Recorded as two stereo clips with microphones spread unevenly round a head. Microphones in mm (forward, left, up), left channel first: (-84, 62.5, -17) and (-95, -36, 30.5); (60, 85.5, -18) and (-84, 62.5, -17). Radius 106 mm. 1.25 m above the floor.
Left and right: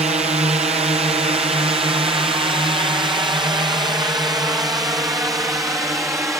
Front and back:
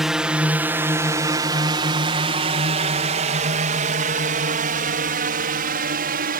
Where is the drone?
85° right; by 6.4 s 170° right.